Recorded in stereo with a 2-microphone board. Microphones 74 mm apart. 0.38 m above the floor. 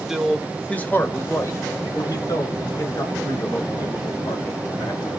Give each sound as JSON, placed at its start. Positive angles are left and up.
{"t": 0.1, "sound": "a man speaking", "side_deg": -5, "distance_m": 0.9}